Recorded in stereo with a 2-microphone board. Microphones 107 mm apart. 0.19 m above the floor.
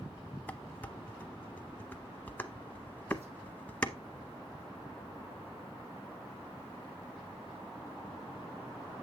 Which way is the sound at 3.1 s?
80° right.